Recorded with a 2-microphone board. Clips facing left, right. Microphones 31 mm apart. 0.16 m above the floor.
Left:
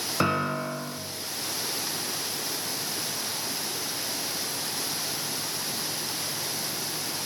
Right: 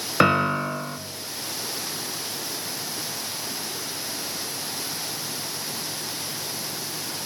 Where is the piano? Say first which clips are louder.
Right 7 dB; 45° right (ahead or behind), 0.5 m.